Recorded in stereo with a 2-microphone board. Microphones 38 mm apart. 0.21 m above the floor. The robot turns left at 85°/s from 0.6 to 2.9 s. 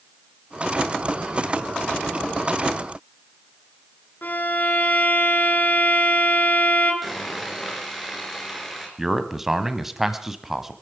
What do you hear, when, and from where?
4.2 s a violin: 55° left (ahead or behind), 3.5 m
7.0 s sawing: 5° right (ahead or behind), 4 m
9.0 s a man speaking: 10° right (ahead or behind), 1.1 m